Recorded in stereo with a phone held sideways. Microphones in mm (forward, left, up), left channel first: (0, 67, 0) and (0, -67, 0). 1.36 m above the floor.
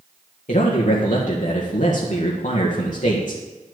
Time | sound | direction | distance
0.5 | a man speaking | 65° left (ahead or behind) | 1.8 m